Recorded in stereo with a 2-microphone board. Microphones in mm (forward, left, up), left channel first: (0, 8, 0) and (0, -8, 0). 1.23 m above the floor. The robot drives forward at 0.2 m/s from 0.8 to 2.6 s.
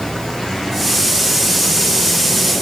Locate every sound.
Only background noise.